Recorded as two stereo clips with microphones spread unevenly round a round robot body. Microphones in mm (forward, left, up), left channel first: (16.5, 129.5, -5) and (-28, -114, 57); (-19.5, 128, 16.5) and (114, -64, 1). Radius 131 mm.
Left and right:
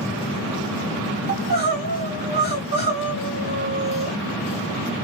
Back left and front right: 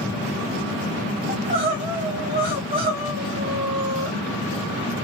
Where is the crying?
55° right, 1.6 m.